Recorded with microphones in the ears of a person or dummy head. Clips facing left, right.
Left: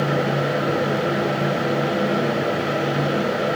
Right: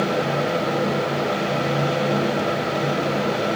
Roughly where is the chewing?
I don't hear chewing.